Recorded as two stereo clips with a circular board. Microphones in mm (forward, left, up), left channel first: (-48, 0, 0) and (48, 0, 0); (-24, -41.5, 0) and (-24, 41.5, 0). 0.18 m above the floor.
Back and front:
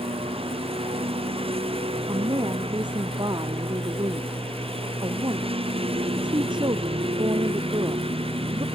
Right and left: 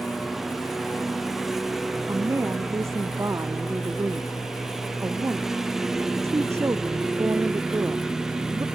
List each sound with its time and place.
0.0 s a lawn mower: straight ahead; by 8.8 s 5° left
2.1 s a woman speaking: 35° left